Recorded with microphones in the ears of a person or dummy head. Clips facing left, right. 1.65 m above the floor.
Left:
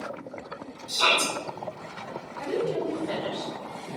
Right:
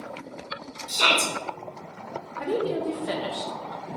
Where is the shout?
25° right (ahead or behind), 0.9 m.